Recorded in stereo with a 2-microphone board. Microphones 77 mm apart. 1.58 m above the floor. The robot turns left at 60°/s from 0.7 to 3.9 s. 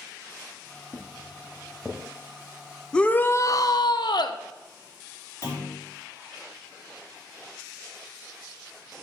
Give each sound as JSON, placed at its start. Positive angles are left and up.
{"t": 0.9, "sound": "footsteps", "side_deg": 20, "distance_m": 2.0}
{"t": 2.9, "sound": "a shout", "azimuth_deg": 170, "distance_m": 0.8}
{"t": 5.4, "sound": "a clunk", "side_deg": 35, "distance_m": 4.0}